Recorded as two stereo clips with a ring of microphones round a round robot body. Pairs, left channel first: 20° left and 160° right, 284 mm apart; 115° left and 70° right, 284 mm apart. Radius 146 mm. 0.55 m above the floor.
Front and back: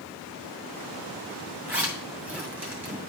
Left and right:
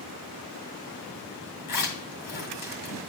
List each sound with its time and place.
1.7 s a zipper: 120° left, 2.5 m